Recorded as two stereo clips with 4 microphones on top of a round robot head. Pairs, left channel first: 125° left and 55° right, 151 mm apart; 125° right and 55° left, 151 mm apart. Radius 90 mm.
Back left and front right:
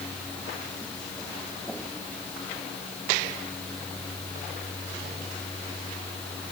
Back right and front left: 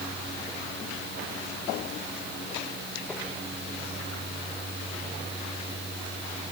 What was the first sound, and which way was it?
Only background noise.